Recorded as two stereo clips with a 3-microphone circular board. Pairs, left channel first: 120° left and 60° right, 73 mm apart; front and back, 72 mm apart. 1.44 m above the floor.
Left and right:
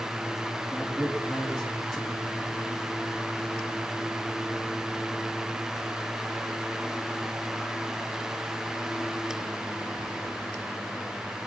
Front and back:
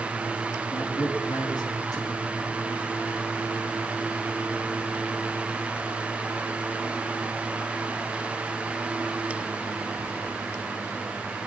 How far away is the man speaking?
About 3 m.